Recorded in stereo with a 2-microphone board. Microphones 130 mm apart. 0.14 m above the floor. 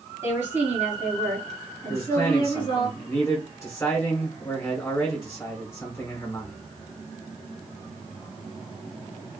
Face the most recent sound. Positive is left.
turn(degrees=20)  # may be behind; listen again after turning